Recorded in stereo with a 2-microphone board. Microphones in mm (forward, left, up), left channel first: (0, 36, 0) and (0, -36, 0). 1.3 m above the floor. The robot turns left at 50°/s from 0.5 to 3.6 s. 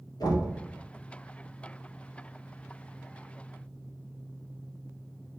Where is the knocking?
75° left (ahead or behind), 1.2 m.